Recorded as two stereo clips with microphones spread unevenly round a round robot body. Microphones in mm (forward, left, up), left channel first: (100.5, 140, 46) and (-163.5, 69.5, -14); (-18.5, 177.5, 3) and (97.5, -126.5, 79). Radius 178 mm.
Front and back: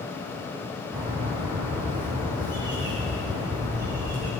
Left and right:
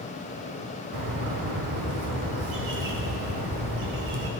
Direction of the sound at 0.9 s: 95° right.